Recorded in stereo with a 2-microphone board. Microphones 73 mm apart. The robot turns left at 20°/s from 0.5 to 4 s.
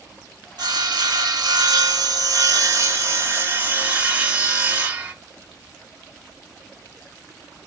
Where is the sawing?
90° right, 1.0 m; by 5.1 s 160° right, 1.0 m.